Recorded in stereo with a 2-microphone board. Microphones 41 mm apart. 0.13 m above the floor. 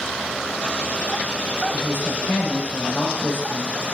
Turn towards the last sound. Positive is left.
turn(degrees=65)  # may be behind; listen again after turning